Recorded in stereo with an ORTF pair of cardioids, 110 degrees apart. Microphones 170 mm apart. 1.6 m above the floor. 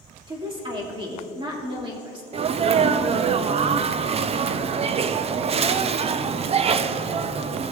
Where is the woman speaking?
30° right, 3 m.